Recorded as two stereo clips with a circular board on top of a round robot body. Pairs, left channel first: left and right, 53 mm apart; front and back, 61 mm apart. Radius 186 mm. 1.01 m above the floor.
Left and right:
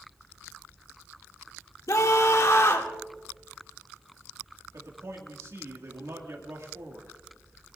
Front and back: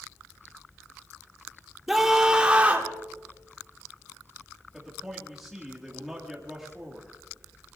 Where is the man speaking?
95° right, 2.0 m.